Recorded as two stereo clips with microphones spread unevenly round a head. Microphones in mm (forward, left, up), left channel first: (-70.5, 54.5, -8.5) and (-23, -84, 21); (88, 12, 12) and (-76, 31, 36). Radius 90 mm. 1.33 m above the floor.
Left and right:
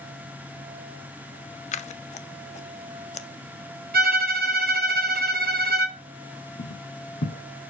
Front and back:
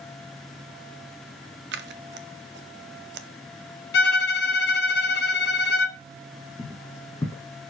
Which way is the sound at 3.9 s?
45° right.